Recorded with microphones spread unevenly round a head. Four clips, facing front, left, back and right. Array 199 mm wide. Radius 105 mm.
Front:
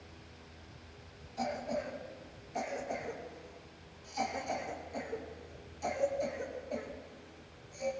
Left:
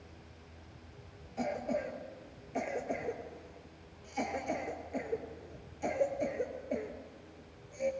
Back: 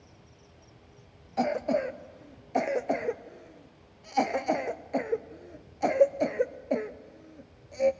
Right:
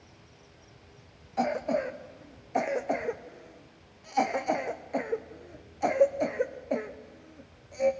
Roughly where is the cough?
Behind.